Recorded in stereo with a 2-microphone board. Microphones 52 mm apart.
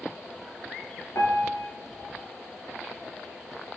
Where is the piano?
65° left (ahead or behind), 0.9 m.